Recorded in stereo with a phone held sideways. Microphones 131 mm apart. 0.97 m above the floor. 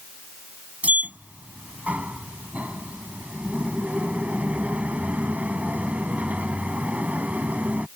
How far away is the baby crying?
I don't hear a baby crying.